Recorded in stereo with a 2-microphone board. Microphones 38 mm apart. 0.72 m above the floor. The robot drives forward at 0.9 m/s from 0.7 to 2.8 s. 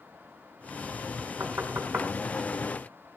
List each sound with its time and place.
1.4 s knocking: 70° right (ahead or behind), 4.5 m; by 2.1 s 80° right, 4.5 m